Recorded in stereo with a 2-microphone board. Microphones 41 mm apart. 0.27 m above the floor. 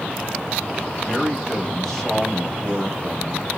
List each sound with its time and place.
1.0 s a man speaking: 20° left (ahead or behind), 1.0 m; by 3.5 s 5° right (ahead or behind), 1.6 m